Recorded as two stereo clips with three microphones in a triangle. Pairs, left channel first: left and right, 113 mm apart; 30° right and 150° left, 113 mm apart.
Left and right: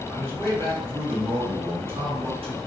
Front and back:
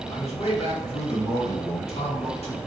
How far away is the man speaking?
About 1.1 m.